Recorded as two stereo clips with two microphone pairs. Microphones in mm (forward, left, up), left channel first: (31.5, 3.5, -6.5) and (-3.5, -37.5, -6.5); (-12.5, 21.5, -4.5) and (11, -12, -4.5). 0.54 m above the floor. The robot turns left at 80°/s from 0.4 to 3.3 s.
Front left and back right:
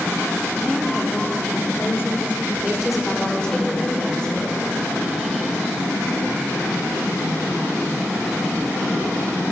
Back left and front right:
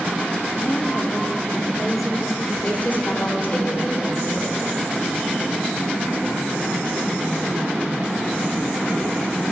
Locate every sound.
0.5 s a woman speaking: 155° left, 0.9 m; by 2.4 s 10° left, 0.9 m
2.5 s a woman speaking: straight behind, 1.6 m; by 4.5 s 115° left, 1.6 m